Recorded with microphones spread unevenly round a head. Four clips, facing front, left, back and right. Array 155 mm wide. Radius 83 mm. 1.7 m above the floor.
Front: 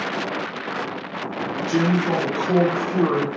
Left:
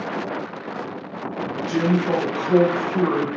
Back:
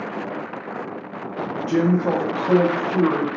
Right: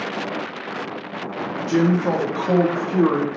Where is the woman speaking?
140° right, 0.6 m; by 3.3 s 100° right, 1.2 m.